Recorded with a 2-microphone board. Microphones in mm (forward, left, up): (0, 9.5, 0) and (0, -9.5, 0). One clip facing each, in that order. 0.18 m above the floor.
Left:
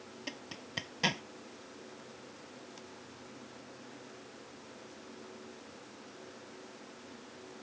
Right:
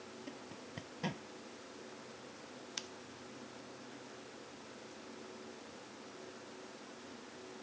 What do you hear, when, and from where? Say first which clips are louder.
0.3 s a zipper: left 4 dB; 65° left (ahead or behind)
2.8 s scissors: right 6 dB; 65° right (ahead or behind)